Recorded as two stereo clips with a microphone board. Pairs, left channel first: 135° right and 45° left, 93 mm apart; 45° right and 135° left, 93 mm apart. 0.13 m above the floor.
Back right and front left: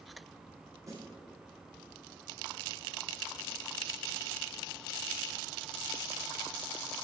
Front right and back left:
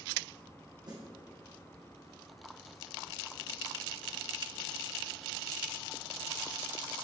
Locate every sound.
0.9 s a snare drum: 95° left, 4 m